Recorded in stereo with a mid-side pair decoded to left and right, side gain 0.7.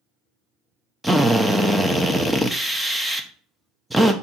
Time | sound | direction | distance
1.0 | a drill | 5° right | 0.6 m